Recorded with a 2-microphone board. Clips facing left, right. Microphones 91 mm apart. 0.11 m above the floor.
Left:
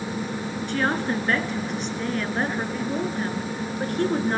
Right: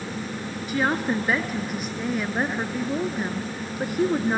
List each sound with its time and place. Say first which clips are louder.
0.7 s a woman speaking: right 1 dB; 5° right (ahead or behind), 1.1 m